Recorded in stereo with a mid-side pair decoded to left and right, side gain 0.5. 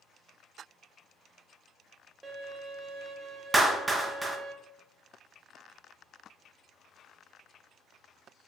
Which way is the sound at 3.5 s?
20° right.